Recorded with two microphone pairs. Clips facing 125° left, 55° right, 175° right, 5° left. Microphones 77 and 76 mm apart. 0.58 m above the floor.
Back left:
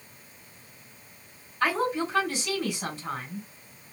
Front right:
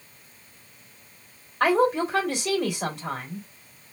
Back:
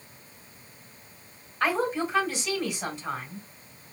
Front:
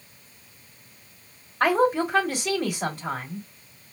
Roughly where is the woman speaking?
Ahead right.